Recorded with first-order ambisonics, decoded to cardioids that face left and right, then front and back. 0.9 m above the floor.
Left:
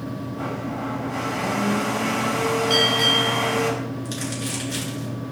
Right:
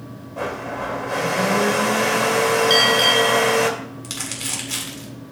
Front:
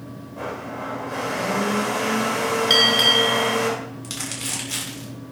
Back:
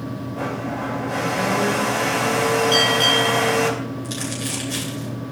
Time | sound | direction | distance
0.4 | a blender | 100° right | 3 m
2.7 | a bell | 25° right | 5 m
4.0 | crumpling | 65° right | 7.5 m